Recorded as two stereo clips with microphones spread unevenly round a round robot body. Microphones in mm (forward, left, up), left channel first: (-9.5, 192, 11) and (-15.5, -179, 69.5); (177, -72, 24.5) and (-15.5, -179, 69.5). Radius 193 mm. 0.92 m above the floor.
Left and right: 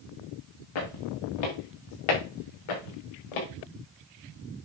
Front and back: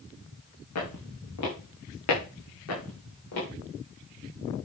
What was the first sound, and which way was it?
Footsteps, 55° left.